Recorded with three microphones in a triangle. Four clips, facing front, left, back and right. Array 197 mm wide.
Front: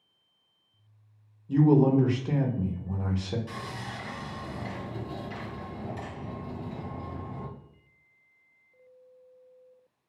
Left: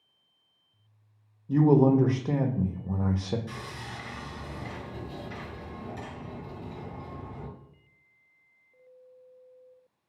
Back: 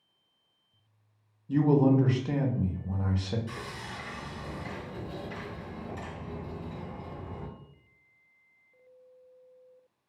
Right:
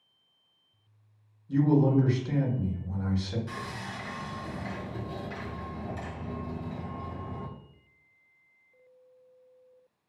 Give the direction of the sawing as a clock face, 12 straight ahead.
1 o'clock.